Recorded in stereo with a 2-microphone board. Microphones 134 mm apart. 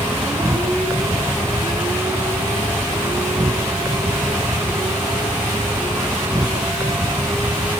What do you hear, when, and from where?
0.0 s an insect: 15° right (ahead or behind)